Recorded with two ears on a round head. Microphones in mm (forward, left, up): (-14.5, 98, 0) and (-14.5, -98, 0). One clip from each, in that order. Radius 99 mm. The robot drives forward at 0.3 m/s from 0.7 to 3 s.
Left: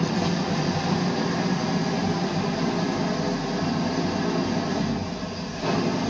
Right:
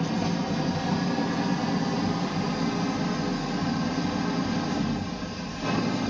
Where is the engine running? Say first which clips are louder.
Left 3 dB; 30° left (ahead or behind), 1.1 m; by 6.1 s 20° left (ahead or behind), 1.8 m.